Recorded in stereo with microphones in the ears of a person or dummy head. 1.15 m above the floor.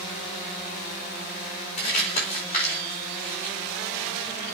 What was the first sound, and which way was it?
Crumpling, 40° left (ahead or behind).